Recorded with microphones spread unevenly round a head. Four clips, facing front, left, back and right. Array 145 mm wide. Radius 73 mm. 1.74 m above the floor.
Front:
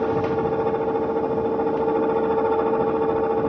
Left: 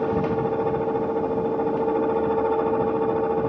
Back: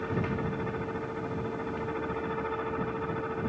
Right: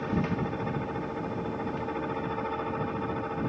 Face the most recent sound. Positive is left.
turn(degrees=40)